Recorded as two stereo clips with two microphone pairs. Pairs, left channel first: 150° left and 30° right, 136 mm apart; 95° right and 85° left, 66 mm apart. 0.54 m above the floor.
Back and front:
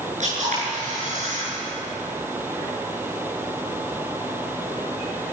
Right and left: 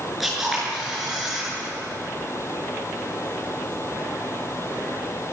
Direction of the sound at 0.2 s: 5° right.